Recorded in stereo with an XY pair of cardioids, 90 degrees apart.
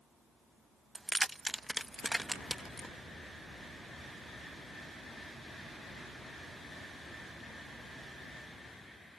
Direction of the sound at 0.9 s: 25° right.